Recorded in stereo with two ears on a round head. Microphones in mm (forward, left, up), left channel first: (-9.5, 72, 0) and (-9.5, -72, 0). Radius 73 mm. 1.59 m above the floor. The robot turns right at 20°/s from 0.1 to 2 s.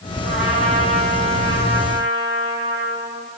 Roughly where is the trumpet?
Ahead right.